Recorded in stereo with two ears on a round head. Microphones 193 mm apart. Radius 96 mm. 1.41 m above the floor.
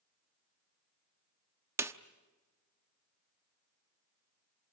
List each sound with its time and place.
1.8 s a snare drum: 15° right (ahead or behind), 0.9 m